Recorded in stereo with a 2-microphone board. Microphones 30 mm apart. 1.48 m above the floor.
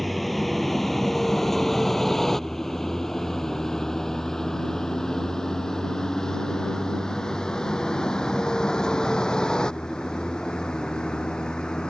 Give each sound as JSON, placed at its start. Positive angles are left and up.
{"t": 0.0, "sound": "a vehicle", "side_deg": 5}